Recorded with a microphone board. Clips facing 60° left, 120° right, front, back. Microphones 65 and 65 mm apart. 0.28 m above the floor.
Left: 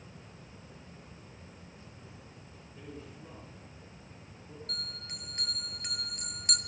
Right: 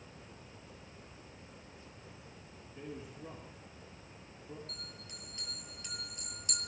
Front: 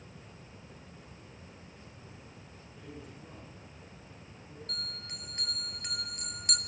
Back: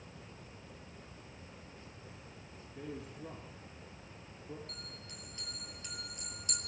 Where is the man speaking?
170° left, 4 m.